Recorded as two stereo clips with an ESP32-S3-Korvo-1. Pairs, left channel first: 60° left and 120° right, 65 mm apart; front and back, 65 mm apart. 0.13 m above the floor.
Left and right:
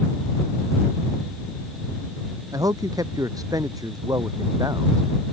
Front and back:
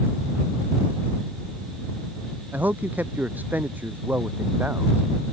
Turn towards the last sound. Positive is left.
turn(degrees=-120)